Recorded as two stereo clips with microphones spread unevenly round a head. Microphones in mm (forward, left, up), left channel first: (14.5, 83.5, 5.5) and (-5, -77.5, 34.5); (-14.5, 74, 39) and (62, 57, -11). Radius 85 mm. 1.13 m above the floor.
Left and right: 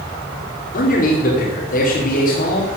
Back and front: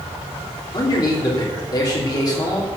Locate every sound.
0.7 s a man speaking: 125° left, 3 m